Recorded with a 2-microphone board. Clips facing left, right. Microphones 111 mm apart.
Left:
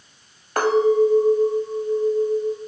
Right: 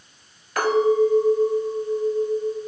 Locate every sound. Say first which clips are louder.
0.6 s a clink: left 1 dB; 45° left (ahead or behind), 0.9 m